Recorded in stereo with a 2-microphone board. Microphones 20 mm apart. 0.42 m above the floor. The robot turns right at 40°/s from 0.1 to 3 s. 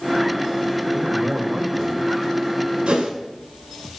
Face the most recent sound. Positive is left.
turn(degrees=-80)